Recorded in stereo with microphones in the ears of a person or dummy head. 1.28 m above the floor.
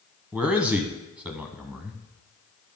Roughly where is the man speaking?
Centre.